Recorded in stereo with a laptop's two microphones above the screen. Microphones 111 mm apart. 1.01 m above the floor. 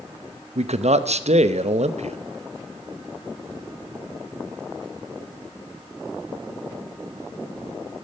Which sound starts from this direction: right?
A man speaking, at 0.6 s.